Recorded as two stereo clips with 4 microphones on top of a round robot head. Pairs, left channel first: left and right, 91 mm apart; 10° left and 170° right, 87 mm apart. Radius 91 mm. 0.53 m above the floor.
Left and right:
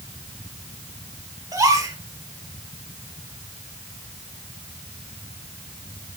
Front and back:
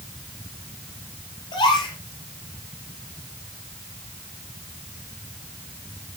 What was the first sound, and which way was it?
A gasp, 40° right.